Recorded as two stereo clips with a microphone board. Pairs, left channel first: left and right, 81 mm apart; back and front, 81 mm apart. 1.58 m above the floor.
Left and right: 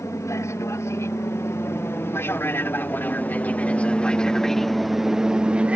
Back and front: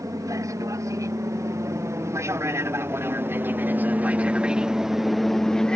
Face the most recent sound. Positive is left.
turn(degrees=-120)